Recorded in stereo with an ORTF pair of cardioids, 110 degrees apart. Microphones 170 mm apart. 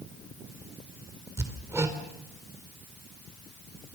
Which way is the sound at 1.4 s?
15° right.